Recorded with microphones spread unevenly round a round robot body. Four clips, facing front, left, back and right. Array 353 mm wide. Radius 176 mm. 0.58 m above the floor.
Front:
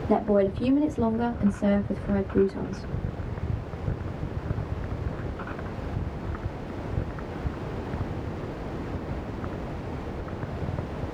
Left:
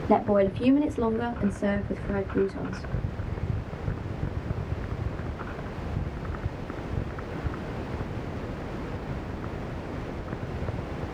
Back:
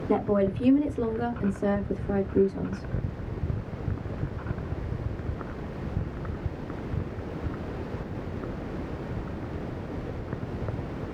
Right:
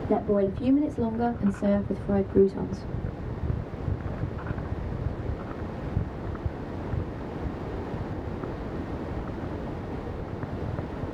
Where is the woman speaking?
90° left, 1.4 m; by 2.9 s 80° right, 1.3 m.